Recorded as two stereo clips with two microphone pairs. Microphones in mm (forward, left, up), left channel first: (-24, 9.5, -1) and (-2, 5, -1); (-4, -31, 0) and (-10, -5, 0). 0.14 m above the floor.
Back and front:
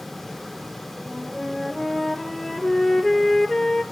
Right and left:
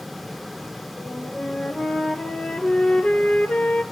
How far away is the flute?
About 1.1 m.